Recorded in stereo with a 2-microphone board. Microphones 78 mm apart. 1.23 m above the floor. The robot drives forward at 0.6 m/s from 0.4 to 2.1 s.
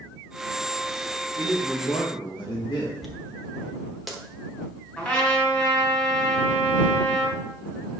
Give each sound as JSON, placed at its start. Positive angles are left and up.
{"t": 1.4, "sound": "a man speaking", "side_deg": 55, "distance_m": 1.7}
{"t": 3.0, "sound": "a dropped coin", "side_deg": 0, "distance_m": 1.0}
{"t": 5.0, "sound": "a trumpet", "side_deg": 20, "distance_m": 2.5}